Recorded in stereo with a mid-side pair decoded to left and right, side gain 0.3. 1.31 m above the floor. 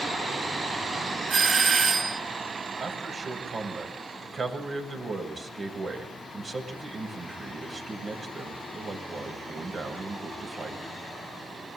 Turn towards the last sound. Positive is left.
turn(degrees=-55)